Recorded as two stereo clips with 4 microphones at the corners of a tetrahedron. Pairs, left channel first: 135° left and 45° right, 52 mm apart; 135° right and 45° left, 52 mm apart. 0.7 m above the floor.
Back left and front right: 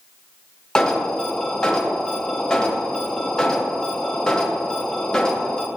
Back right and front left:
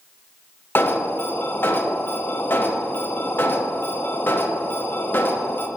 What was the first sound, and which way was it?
An alarm, 155° right.